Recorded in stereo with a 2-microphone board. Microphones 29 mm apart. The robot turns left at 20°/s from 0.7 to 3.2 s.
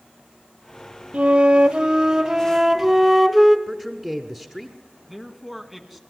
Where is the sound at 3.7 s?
15° right (ahead or behind), 1.3 m.